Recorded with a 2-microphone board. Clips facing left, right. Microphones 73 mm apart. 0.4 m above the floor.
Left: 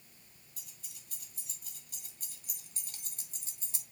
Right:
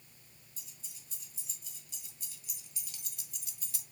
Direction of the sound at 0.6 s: 55° left (ahead or behind).